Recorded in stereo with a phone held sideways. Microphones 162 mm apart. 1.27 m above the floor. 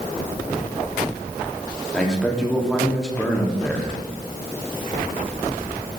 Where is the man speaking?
5° left (ahead or behind), 3 m.